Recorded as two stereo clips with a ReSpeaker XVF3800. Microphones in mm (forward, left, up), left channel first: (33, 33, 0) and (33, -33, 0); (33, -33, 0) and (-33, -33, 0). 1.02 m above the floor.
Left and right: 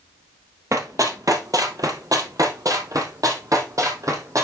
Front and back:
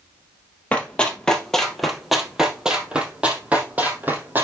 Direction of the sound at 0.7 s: 65° right.